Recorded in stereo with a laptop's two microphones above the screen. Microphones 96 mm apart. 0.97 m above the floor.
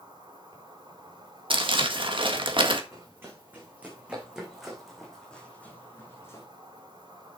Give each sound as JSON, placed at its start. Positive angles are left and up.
{"t": 0.0, "sound": "an insect", "side_deg": -55, "distance_m": 5.0}
{"t": 1.5, "sound": "crumpling", "side_deg": -60, "distance_m": 1.7}
{"t": 2.9, "sound": "running footsteps", "side_deg": -25, "distance_m": 3.5}